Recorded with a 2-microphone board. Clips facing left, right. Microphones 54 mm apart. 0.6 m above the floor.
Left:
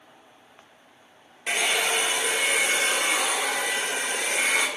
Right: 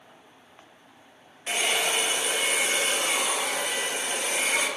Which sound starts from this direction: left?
A hair dryer, at 1.5 s.